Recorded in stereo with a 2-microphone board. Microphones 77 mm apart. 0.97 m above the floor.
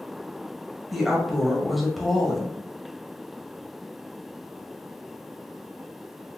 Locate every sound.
0.9 s a woman speaking: centre (ahead or behind), 0.7 m